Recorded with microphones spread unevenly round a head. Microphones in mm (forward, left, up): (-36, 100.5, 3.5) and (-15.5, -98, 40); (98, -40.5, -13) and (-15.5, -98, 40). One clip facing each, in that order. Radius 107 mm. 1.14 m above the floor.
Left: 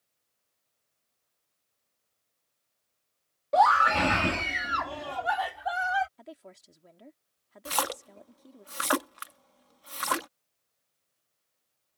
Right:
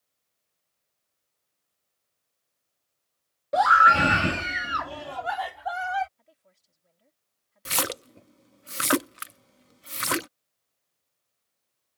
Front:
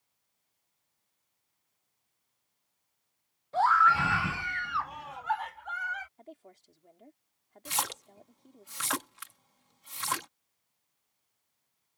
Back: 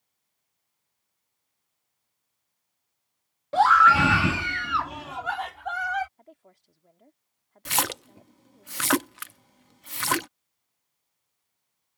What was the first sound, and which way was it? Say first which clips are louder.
A scream: even, back 6 dB; 160° right.